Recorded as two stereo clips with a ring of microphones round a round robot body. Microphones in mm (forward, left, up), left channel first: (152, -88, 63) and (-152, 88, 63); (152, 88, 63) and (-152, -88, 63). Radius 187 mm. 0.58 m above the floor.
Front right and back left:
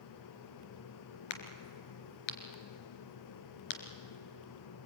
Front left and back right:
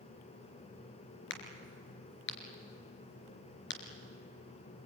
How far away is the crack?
About 3 m.